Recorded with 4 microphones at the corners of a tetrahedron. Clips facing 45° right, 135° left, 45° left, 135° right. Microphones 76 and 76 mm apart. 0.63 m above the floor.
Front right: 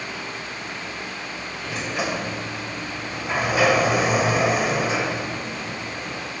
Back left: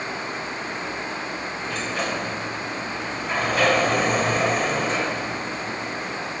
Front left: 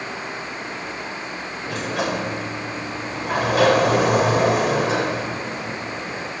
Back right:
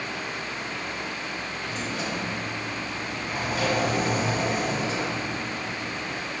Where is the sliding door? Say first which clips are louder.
Front right 1 dB, front left 9 dB; 35° left, 1.7 m.